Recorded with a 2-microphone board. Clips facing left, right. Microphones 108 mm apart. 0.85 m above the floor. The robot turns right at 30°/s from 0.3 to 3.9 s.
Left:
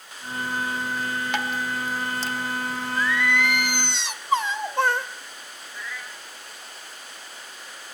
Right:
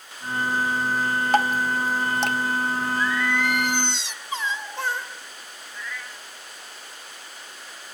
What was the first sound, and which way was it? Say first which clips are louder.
Dripping: right 9 dB; 40° right (ahead or behind).